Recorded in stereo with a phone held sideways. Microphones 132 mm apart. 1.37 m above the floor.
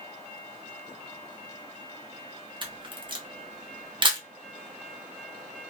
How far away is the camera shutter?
About 0.6 m.